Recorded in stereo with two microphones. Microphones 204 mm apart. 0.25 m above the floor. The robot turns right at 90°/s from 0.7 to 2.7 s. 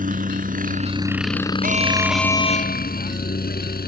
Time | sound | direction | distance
0.0 | a helicopter | 40° right (ahead or behind) | ?
1.6 | an alarm | 45° right | ?